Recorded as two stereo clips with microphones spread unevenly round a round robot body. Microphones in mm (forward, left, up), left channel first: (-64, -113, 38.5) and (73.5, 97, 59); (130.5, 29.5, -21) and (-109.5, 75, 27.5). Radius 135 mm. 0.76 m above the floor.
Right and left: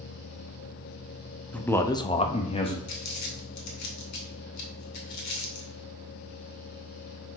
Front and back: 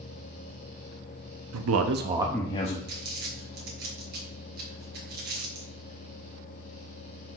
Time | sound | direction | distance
1.5 | a man speaking | 155° left | 1.1 m
2.9 | crumpling | 130° right | 2.5 m